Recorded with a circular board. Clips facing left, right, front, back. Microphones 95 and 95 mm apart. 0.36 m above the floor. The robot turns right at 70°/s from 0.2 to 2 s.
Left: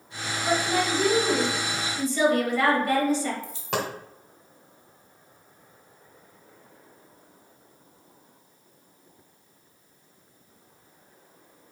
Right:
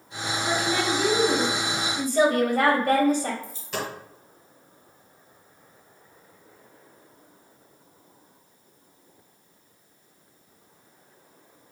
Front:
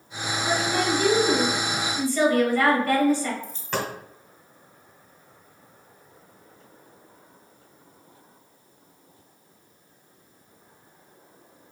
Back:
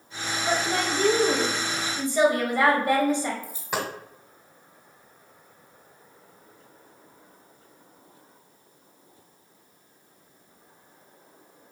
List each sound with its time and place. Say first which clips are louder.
0.5 s a woman speaking: left 1 dB, front 2 dB; 135° left, 1.4 m; by 3.3 s 115° right, 1.4 m
3.4 s a dropped coin: left 3 dB, front 1 dB; 105° left, 1.2 m